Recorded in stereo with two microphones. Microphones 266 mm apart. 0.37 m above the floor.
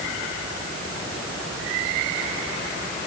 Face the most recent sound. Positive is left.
No sound to turn to.